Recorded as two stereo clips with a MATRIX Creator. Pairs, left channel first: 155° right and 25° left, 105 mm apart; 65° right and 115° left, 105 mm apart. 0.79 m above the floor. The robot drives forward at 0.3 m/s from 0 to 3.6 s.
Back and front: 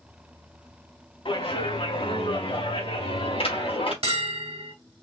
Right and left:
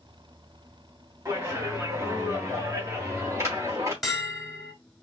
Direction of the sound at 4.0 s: 25° left.